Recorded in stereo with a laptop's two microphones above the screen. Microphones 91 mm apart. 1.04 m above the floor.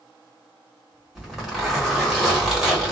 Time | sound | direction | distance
1.1 | a zipper | 5° right (ahead or behind) | 1.2 m